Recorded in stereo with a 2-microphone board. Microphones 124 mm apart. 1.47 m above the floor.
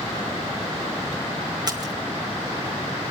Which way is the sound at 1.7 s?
35° right (ahead or behind).